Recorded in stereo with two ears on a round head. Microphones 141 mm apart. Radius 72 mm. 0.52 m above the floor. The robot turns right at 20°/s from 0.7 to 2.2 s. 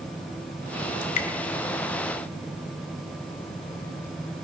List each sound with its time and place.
1.0 s dripping: 65° left (ahead or behind), 1.1 m; by 1.3 s 60° left (ahead or behind), 1.1 m